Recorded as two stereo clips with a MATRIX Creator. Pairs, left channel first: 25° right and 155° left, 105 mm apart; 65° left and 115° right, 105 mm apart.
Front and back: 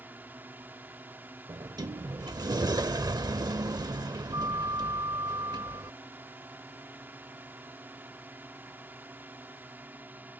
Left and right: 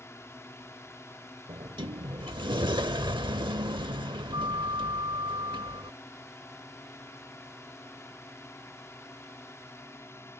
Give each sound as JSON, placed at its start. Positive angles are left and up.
{"t": 0.0, "sound": "a drone", "azimuth_deg": 100}
{"t": 1.5, "sound": "a sliding door", "azimuth_deg": -155}